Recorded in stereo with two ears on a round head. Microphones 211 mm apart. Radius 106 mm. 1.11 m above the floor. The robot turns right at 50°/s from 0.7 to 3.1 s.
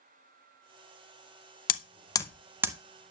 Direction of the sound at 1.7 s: 35° left (ahead or behind).